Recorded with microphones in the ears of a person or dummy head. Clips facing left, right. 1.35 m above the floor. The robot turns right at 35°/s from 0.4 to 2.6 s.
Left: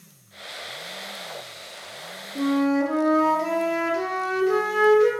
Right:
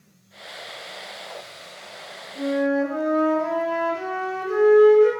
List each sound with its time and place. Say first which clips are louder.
2.4 s a flute: left 1 dB; 55° left (ahead or behind), 0.5 m; by 5.1 s 60° left (ahead or behind), 0.5 m